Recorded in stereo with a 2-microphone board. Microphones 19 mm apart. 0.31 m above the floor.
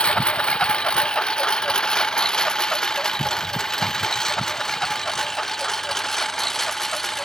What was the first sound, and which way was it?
A lawn mower, 55° left (ahead or behind).